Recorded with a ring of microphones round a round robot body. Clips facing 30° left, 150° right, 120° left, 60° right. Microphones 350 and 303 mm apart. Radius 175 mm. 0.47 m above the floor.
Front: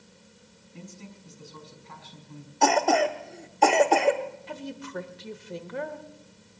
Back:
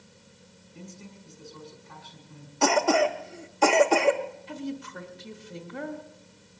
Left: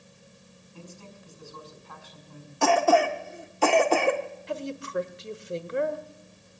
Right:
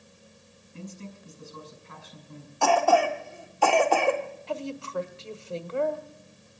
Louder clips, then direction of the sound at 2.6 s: Even, left 1 dB; 150° left.